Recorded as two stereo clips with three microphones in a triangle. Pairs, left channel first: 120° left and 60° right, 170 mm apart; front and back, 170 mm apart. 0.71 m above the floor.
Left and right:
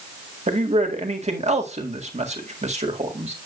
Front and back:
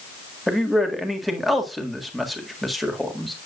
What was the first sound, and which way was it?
A man speaking, 90° right.